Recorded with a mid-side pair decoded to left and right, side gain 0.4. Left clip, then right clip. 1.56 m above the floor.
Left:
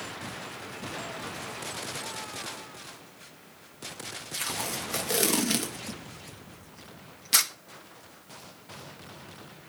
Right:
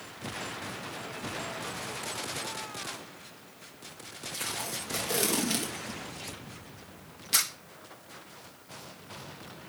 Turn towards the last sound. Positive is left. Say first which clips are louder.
# left 3 dB
turn(degrees=35)